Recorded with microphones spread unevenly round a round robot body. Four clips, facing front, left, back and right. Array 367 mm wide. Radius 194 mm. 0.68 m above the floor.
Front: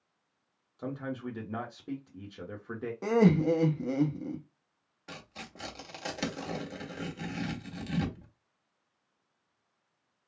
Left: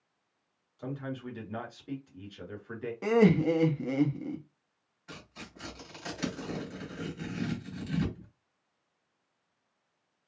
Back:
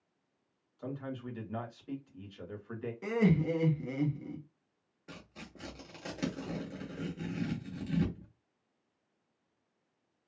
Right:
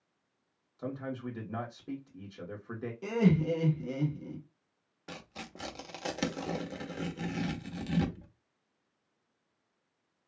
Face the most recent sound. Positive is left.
turn(degrees=-45)